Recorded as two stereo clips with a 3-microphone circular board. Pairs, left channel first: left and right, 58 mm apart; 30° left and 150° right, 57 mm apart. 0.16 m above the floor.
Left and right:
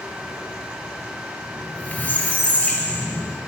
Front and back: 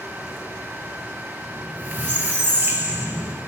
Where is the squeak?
155° left, 0.7 m.